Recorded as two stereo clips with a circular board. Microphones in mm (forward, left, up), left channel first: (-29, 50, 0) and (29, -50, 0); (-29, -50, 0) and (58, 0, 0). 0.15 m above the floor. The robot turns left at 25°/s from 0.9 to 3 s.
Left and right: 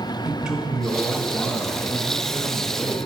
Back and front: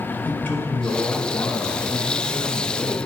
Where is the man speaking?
130° right, 1.2 m; by 3.1 s straight behind, 1.2 m.